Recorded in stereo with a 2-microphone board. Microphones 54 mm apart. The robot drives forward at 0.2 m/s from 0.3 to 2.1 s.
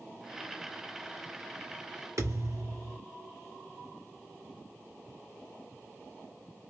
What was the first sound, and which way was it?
A thud, 75° right (ahead or behind).